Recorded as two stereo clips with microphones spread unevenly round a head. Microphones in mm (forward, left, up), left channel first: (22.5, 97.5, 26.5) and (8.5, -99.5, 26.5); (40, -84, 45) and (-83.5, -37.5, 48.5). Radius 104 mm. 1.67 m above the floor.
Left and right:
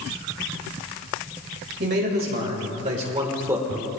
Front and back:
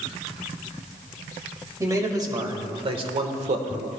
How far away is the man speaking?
About 2.5 m.